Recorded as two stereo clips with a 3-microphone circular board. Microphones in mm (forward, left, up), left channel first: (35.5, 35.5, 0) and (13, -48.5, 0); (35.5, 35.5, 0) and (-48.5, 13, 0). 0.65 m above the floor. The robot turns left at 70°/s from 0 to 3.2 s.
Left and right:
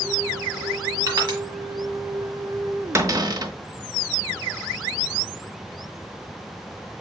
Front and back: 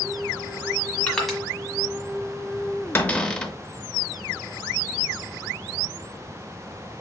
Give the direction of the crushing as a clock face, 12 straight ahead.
2 o'clock.